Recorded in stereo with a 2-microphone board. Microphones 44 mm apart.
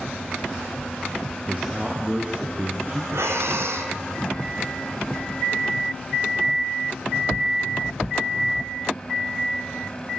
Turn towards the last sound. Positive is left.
turn(degrees=-75)  # may be behind; listen again after turning